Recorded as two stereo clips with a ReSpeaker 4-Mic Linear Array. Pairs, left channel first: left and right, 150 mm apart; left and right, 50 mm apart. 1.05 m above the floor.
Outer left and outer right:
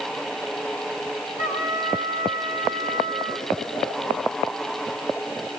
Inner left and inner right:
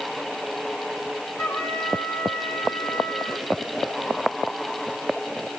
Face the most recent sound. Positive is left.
turn(degrees=55)  # may be behind; listen again after turning